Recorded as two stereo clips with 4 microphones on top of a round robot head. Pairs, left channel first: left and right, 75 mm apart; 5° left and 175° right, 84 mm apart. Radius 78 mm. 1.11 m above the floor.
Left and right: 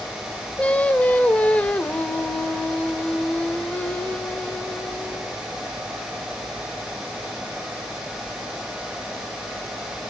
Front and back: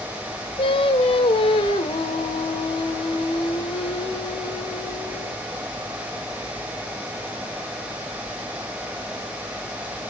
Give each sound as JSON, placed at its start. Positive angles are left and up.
{"t": 0.6, "sound": "singing", "azimuth_deg": 20, "distance_m": 1.4}